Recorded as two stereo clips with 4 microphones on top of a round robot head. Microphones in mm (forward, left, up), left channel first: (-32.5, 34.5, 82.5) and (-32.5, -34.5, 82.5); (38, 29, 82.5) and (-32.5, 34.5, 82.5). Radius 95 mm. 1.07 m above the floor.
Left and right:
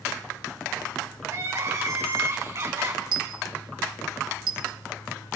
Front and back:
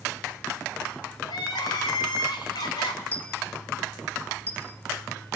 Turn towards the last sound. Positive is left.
turn(degrees=-80)